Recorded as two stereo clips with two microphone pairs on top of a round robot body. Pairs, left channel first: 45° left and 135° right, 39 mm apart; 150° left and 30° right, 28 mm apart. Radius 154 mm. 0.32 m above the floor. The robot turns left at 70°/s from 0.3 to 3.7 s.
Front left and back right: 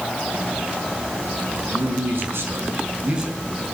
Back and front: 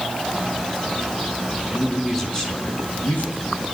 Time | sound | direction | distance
1.7 | a man speaking | 95° right | 5 m